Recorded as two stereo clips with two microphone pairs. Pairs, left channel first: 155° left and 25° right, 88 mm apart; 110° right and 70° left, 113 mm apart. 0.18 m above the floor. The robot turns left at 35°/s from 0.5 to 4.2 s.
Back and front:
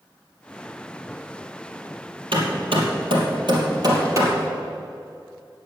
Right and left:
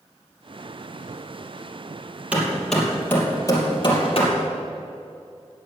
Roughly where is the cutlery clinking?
I don't hear cutlery clinking.